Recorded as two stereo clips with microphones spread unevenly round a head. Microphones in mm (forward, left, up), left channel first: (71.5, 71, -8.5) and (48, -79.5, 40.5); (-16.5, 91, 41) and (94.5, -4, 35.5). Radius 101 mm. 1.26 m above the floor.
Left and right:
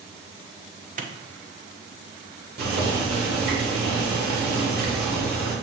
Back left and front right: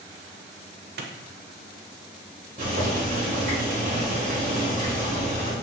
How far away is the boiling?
About 2.5 m.